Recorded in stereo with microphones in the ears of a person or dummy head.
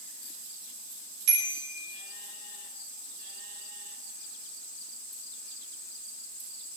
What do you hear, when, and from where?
1.3 s a bicycle bell: 60° right (ahead or behind), 5.5 m